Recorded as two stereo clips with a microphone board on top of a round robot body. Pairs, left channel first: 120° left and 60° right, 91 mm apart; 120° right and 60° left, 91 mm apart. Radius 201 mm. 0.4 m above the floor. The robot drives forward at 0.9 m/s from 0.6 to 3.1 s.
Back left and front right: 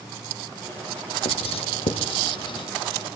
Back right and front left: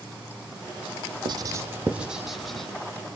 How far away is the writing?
About 0.7 m.